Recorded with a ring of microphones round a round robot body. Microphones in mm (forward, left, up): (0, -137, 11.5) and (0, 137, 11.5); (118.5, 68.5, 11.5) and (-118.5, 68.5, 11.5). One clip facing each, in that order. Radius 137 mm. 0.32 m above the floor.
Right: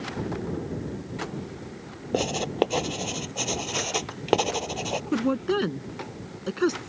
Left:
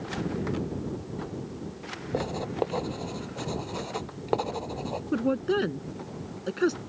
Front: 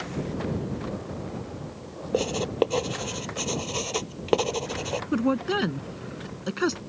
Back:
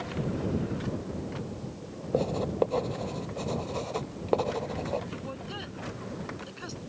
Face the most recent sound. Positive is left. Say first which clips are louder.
# right 1 dB, front 15 dB
turn(degrees=-10)